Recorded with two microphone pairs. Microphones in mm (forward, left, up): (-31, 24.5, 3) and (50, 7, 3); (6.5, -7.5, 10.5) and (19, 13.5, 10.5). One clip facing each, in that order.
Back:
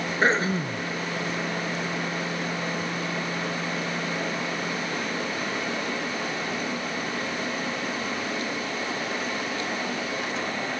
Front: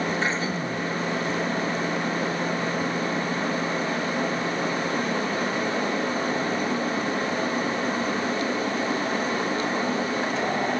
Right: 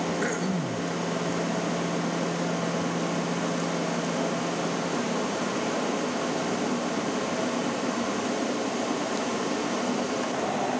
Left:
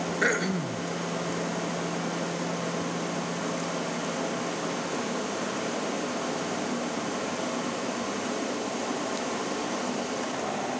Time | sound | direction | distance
0.2 | throat clearing | 120° left | ?